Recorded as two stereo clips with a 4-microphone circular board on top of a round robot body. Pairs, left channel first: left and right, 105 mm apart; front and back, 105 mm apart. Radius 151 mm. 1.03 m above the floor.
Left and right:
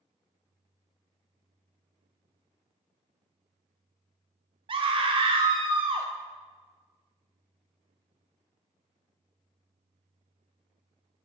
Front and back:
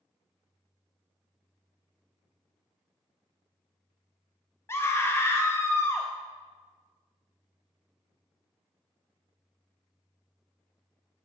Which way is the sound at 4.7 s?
65° right.